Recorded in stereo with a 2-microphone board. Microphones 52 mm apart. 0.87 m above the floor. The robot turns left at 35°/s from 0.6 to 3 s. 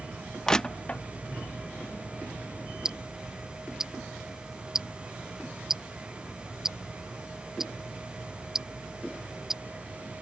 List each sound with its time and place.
0.5 s crushing: 15° left (ahead or behind); by 1.0 s 25° left (ahead or behind)
2.9 s ticking: 15° right (ahead or behind); by 9.6 s 10° right (ahead or behind)